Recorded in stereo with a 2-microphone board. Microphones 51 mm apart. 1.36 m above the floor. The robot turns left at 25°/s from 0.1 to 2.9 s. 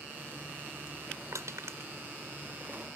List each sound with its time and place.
1.3 s crushing: 75° right (ahead or behind); by 1.9 s 60° right (ahead or behind)